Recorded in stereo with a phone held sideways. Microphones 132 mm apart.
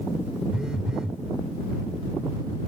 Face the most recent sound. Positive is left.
turn(degrees=-5)  # may be behind; listen again after turning